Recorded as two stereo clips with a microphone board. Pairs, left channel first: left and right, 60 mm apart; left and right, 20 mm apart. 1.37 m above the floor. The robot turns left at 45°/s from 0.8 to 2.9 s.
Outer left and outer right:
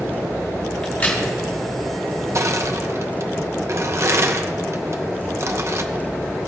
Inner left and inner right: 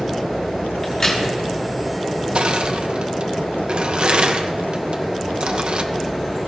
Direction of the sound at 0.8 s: 15° left (ahead or behind).